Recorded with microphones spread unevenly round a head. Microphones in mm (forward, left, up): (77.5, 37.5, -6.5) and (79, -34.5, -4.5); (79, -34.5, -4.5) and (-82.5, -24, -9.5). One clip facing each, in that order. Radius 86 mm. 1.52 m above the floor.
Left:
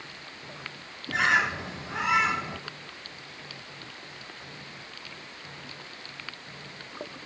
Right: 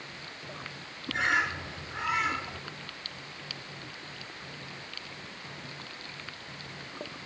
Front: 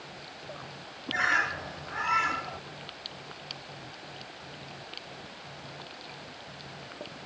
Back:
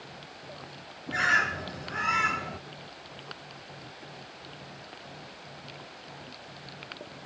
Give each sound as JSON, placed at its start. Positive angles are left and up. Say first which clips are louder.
{"t": 1.1, "sound": "a bird", "louder": "left 4 dB, back 1 dB", "azimuth_deg": 120, "distance_m": 0.5}